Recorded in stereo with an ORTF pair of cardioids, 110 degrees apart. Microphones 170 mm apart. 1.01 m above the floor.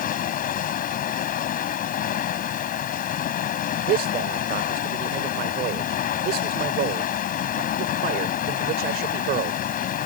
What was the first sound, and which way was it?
Running water, 60° left.